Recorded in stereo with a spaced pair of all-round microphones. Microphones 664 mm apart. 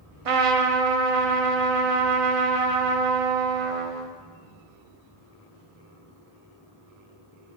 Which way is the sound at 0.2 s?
55° right (ahead or behind).